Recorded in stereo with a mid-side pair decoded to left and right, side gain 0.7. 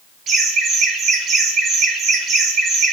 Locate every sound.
0.3 s laughter: 45° right, 2.5 m